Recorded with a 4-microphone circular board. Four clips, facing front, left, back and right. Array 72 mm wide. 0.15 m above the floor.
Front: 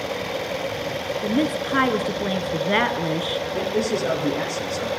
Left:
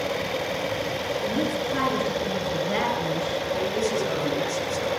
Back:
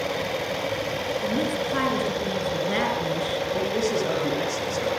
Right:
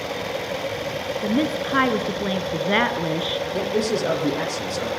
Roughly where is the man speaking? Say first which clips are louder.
Right 3 dB, front 2 dB; right.